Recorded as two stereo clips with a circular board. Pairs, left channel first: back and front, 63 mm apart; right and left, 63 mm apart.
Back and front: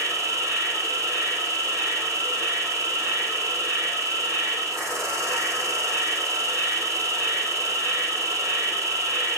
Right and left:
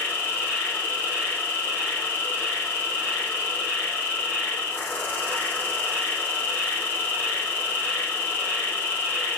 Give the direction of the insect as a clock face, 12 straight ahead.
1 o'clock.